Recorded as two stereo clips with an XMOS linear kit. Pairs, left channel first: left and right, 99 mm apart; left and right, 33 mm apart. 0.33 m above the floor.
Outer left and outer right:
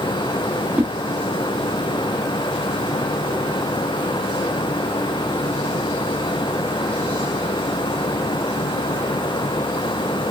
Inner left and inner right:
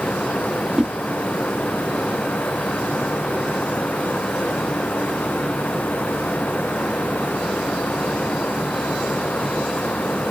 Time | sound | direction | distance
0.8 | a whoosh | 20° right (ahead or behind) | 0.8 m